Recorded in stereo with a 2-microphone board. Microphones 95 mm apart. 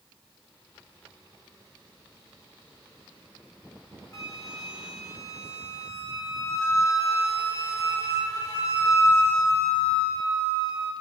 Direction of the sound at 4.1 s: 35° left (ahead or behind).